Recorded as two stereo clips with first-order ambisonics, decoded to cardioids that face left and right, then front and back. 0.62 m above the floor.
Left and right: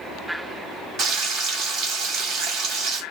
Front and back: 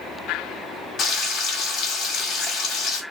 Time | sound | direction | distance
1.0 | frying | 55° right | 1.2 m